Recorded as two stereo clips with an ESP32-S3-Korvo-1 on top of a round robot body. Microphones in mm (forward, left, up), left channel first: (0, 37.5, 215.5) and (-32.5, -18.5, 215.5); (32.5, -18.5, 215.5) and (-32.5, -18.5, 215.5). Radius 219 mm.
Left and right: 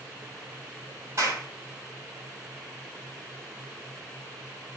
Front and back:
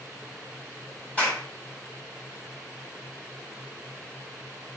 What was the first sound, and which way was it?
A clap, 70° right.